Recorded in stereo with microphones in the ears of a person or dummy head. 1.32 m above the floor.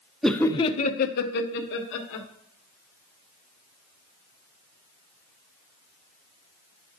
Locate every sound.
0.2 s laughter: centre (ahead or behind), 0.5 m; by 2.3 s 70° left (ahead or behind), 1.4 m